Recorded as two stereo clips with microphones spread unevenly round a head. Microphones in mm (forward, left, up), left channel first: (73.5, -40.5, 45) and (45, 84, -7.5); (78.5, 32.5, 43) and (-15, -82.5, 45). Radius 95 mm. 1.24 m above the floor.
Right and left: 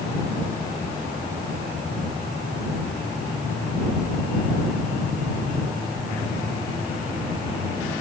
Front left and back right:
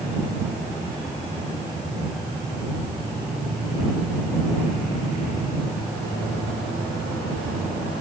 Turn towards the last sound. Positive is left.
No sound to turn to.